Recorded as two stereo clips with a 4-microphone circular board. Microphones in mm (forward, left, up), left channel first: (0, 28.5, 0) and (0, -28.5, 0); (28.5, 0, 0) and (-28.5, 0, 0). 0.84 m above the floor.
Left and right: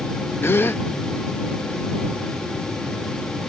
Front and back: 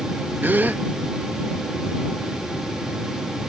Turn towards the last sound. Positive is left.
turn(degrees=130)